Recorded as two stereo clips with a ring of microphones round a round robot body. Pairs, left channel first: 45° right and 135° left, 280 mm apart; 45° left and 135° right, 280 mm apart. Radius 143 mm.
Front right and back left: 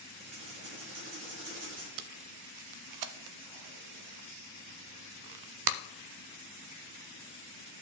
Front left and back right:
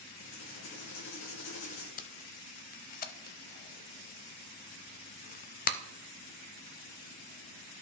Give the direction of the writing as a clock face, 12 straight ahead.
9 o'clock.